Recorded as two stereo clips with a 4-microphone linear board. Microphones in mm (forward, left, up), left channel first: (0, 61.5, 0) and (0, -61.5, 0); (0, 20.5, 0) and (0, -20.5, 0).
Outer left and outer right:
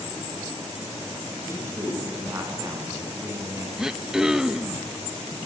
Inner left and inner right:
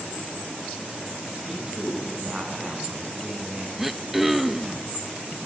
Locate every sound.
1.5 s a man speaking: 20° right (ahead or behind), 8.5 m
3.8 s throat clearing: 5° right (ahead or behind), 0.9 m